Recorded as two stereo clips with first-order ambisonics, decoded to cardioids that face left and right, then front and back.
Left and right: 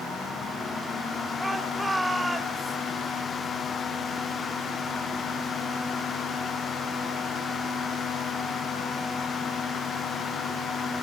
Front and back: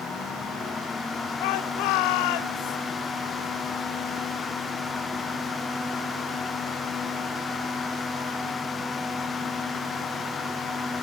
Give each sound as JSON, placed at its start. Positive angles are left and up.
{"t": 1.4, "sound": "a shout", "azimuth_deg": -5, "distance_m": 2.0}